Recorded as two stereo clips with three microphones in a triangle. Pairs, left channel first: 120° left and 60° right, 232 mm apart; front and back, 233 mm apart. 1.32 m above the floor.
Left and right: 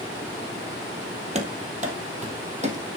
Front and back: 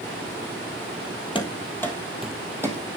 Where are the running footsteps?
45° right, 1.5 m; by 2.8 s 110° right, 1.9 m.